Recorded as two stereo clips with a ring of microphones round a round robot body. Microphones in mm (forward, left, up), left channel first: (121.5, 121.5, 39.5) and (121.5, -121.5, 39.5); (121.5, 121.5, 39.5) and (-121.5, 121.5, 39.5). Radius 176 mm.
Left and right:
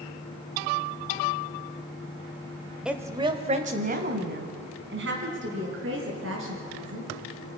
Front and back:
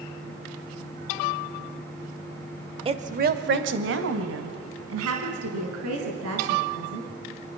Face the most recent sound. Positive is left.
turn(degrees=-140)